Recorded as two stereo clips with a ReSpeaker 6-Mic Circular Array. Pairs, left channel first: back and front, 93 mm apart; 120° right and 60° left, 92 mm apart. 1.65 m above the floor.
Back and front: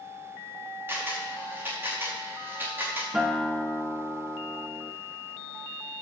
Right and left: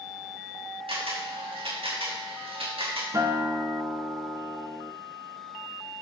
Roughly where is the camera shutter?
Ahead left.